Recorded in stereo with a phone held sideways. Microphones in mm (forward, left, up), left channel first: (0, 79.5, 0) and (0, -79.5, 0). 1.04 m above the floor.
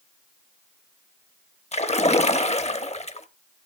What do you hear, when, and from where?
1.7 s a splash: 45° left (ahead or behind), 0.8 m